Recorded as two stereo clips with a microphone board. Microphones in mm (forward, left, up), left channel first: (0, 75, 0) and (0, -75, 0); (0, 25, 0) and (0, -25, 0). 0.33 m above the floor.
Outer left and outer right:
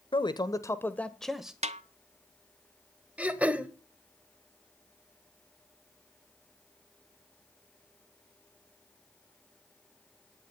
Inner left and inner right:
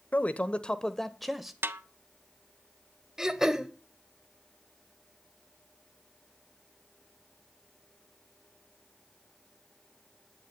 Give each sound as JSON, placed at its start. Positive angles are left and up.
{"t": 0.1, "sound": "a man speaking", "side_deg": 35, "distance_m": 1.0}
{"t": 1.6, "sound": "a snare drum", "side_deg": -45, "distance_m": 0.8}
{"t": 3.2, "sound": "throat clearing", "side_deg": -10, "distance_m": 1.2}